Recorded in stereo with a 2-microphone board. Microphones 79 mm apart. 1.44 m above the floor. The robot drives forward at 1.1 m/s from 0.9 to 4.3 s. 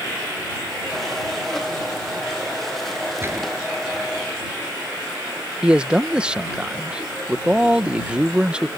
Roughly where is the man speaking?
Centre.